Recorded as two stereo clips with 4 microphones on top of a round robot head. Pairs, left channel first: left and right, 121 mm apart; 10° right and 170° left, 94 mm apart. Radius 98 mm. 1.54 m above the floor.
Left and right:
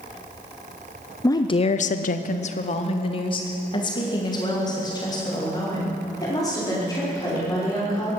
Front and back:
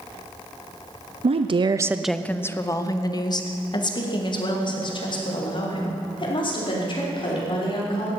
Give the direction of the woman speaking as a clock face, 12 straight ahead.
7 o'clock.